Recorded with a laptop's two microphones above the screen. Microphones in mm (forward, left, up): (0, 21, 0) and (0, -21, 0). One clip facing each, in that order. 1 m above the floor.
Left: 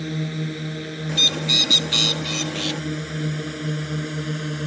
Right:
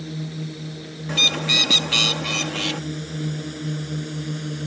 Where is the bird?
50° right (ahead or behind).